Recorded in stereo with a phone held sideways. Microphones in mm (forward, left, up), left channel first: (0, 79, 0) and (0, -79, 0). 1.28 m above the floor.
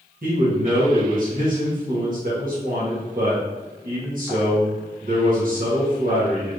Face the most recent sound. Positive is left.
turn(degrees=-60)  # may be behind; listen again after turning